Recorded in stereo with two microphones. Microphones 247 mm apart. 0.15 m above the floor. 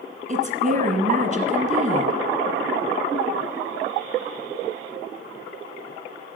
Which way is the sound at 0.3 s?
30° right (ahead or behind).